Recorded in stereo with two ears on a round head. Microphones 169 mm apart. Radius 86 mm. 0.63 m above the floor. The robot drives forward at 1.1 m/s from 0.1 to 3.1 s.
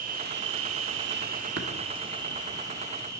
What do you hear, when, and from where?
0.0 s an insect: 45° right (ahead or behind), 1.1 m; by 3.2 s 15° right (ahead or behind), 2.5 m
1.6 s tapping: 60° right (ahead or behind), 1.4 m